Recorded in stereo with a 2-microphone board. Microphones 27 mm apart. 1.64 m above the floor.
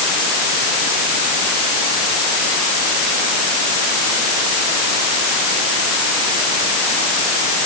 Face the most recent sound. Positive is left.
No sound to turn to.